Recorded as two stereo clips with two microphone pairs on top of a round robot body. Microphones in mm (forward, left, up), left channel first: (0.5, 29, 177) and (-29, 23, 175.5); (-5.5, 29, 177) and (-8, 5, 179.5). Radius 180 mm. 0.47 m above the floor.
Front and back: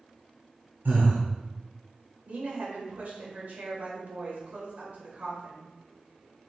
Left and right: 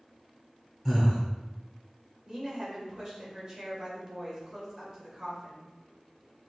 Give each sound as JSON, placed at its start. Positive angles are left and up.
{"t": 0.8, "sound": "breathing", "azimuth_deg": -165, "distance_m": 1.3}
{"t": 2.2, "sound": "a woman speaking", "azimuth_deg": -160, "distance_m": 2.0}